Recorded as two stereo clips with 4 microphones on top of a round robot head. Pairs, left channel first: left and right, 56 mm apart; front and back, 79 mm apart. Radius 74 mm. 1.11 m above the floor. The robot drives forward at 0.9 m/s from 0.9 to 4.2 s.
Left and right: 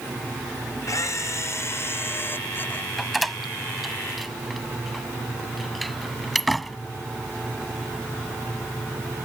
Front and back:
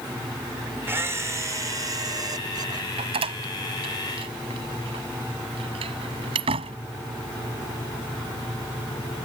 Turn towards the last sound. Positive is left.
turn(degrees=180)